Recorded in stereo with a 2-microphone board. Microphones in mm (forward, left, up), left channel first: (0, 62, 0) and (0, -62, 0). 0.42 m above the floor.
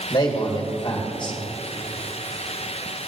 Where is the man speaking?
40° left (ahead or behind), 1.6 m.